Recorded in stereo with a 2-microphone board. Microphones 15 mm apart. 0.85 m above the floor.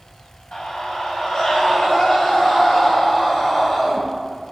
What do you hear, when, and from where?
0.5 s a scream: 70° left (ahead or behind), 2.5 m; by 4.0 s 60° left (ahead or behind), 6 m